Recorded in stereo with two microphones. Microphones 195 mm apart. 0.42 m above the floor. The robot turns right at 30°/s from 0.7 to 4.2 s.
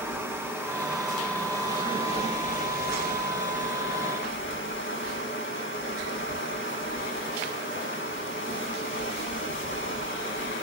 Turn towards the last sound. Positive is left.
turn(degrees=95)